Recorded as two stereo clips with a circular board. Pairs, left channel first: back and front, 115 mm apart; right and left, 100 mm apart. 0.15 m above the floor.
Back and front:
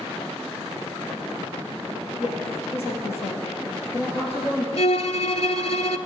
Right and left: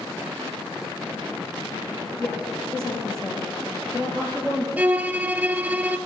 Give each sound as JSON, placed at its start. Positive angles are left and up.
{"t": 2.2, "sound": "a woman speaking", "azimuth_deg": -170, "distance_m": 3.0}
{"t": 4.8, "sound": "a violin", "azimuth_deg": 160, "distance_m": 0.5}